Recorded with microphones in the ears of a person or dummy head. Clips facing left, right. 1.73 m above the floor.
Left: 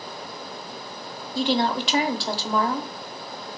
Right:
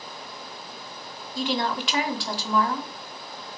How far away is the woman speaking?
About 0.9 m.